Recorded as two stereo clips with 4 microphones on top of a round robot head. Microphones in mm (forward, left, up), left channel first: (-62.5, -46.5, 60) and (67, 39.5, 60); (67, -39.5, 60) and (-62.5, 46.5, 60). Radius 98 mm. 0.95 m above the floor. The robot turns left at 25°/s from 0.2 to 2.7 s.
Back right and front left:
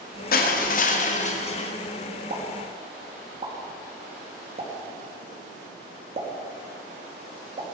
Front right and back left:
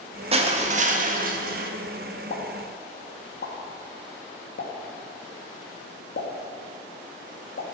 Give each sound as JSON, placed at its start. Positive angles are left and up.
{"t": 0.3, "sound": "crushing", "azimuth_deg": -165, "distance_m": 1.3}
{"t": 2.3, "sound": "a pop", "azimuth_deg": -5, "distance_m": 1.9}